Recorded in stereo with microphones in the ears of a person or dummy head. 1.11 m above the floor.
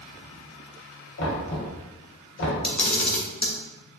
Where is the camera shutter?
5° left (ahead or behind), 0.6 m.